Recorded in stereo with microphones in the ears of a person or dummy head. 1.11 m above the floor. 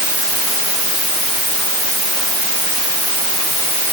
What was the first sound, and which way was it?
Only background noise.